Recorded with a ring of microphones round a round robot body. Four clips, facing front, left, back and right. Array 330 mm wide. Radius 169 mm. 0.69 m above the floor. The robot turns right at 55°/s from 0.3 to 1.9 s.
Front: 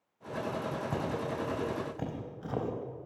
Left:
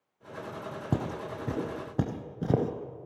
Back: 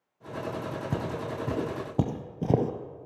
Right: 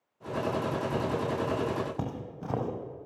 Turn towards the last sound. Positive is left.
turn(degrees=145)